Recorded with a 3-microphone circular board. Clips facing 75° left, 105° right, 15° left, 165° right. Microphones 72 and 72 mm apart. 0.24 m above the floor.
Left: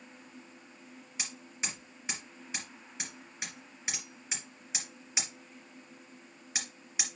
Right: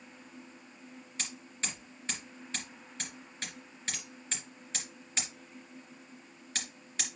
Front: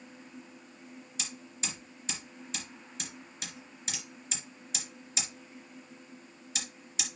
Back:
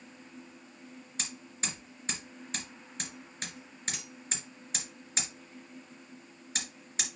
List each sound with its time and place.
1.2 s hammering: 150° left, 3 m